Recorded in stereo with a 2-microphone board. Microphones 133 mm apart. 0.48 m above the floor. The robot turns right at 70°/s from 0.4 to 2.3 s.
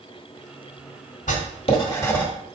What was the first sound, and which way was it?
Writing, 70° left (ahead or behind).